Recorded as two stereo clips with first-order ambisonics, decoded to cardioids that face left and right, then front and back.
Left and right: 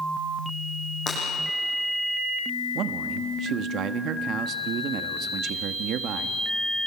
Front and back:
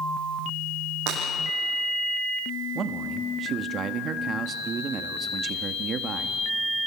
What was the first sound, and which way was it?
Breaking glass, 150° left.